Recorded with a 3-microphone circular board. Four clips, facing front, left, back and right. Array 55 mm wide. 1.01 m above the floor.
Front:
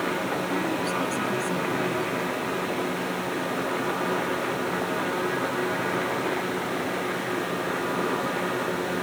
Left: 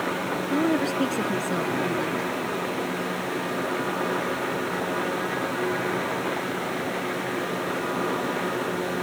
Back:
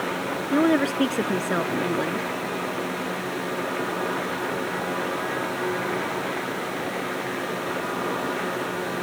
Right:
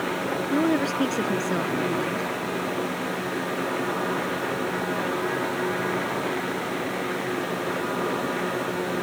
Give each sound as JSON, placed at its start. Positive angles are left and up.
{"t": 0.5, "sound": "a woman speaking", "azimuth_deg": -175}